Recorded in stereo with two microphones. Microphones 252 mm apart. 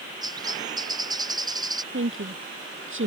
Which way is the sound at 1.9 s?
55° right (ahead or behind).